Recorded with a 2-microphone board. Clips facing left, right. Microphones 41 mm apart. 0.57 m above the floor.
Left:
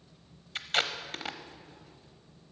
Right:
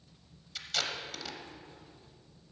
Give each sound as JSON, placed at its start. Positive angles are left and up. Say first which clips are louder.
{"t": 0.6, "sound": "tape being pulled", "louder": "left 5 dB", "side_deg": 40, "distance_m": 0.7}